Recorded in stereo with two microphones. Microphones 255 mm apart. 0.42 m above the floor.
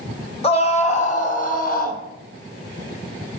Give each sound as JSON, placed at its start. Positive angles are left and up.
{"t": 0.4, "sound": "a scream", "side_deg": 25, "distance_m": 3.0}